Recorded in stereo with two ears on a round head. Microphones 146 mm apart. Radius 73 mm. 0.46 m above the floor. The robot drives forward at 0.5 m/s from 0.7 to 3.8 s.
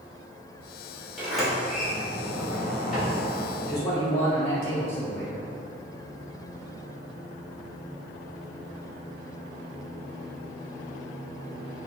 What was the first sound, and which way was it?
A sliding door, centre (ahead or behind).